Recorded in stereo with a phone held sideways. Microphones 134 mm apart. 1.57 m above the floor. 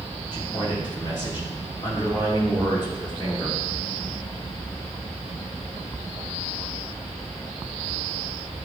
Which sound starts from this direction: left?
A man speaking, at 0.3 s.